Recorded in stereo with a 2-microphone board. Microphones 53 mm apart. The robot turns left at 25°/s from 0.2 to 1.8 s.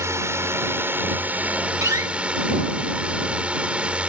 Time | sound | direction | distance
0.0 | a drone | 115° right | ?
1.8 | a door slam | 80° right | ?